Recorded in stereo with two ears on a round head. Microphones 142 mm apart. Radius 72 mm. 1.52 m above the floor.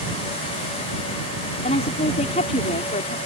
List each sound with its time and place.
1.6 s a woman speaking: 45° left (ahead or behind)